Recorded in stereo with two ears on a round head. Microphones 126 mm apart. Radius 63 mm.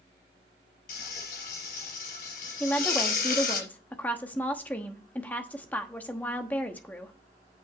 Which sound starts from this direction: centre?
A woman speaking, at 2.6 s.